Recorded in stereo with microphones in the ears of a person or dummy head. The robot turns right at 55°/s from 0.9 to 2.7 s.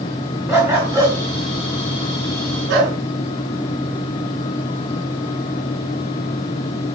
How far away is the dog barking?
About 6 m.